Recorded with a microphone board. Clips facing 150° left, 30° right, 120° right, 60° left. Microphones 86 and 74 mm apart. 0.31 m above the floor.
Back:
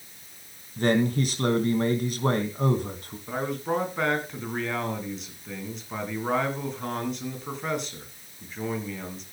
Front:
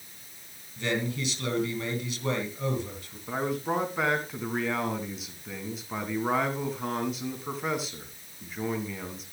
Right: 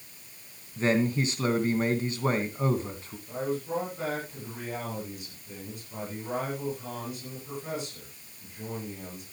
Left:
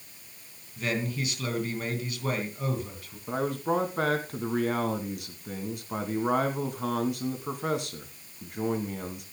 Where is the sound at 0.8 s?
175° right, 2.5 m.